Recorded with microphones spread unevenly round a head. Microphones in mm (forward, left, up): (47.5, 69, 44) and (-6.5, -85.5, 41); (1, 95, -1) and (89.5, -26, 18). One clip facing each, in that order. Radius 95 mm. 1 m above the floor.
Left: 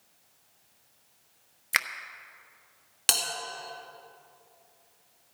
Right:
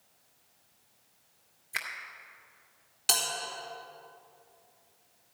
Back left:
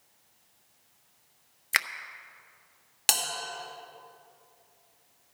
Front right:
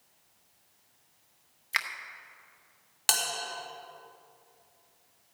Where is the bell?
60° left, 2 m.